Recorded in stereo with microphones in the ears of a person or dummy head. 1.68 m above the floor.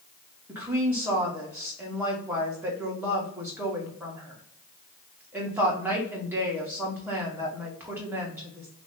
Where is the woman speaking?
10° right (ahead or behind), 0.9 m.